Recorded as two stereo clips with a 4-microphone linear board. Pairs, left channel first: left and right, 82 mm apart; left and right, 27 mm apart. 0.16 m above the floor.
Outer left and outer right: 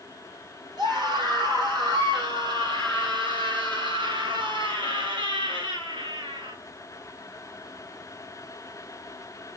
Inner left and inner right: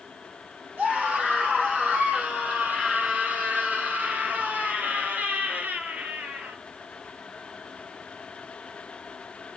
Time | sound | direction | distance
0.8 | a scream | 60° right (ahead or behind) | 7 m